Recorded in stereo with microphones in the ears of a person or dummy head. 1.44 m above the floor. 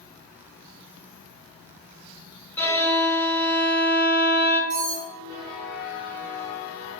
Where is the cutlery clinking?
60° left (ahead or behind), 1.5 m.